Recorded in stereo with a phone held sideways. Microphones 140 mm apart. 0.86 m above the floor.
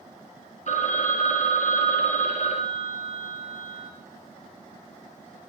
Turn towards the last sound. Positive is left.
turn(degrees=55)  # may be behind; listen again after turning